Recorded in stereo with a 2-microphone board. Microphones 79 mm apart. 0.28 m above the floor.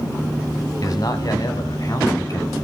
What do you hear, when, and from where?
0.8 s a man speaking: 50° left (ahead or behind), 1.3 m